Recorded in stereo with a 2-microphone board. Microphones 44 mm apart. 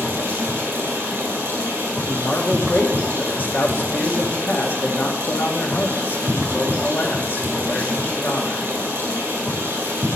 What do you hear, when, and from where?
0.0 s running water: 55° right (ahead or behind), 4.5 m
2.1 s a man speaking: 45° left (ahead or behind), 1.7 m